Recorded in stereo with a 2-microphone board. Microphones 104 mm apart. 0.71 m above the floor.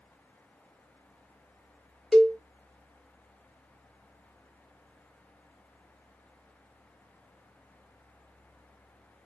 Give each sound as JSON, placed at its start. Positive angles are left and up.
{"t": 2.1, "sound": "a cowbell", "side_deg": 5, "distance_m": 0.6}